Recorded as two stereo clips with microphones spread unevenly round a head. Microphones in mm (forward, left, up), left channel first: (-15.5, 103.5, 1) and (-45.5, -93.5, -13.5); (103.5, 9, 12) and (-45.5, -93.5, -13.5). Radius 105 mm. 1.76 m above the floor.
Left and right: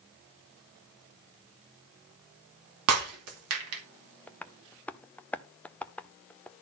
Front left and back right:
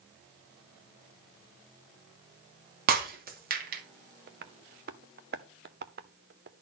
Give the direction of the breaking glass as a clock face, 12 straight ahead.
3 o'clock.